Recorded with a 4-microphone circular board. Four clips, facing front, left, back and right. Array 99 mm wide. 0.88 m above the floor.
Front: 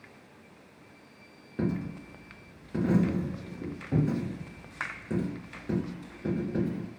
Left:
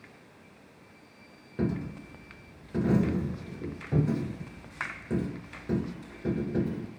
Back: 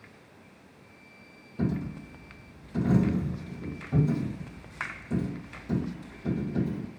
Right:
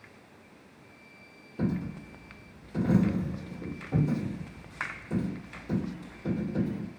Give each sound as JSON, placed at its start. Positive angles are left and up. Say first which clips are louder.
{"t": 1.6, "sound": "a dropped coin", "louder": "even, back 1 dB", "azimuth_deg": 45, "distance_m": 1.7}